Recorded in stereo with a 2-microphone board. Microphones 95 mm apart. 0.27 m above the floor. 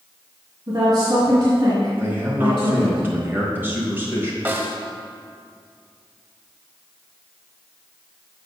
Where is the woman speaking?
60° right (ahead or behind), 1.9 m.